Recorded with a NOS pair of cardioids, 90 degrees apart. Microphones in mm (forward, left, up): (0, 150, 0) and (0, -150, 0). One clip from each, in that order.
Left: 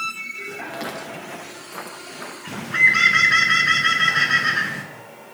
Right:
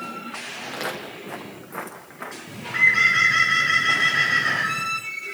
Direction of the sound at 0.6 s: 20° right.